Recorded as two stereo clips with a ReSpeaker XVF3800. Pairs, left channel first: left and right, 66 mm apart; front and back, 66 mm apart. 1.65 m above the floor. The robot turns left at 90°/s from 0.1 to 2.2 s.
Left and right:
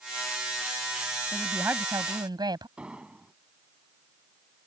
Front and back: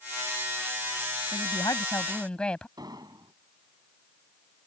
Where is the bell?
I don't hear a bell.